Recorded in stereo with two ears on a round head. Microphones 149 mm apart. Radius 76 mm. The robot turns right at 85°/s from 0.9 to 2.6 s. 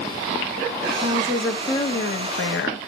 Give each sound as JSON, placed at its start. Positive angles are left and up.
{"t": 1.0, "sound": "a woman speaking", "azimuth_deg": -40, "distance_m": 1.6}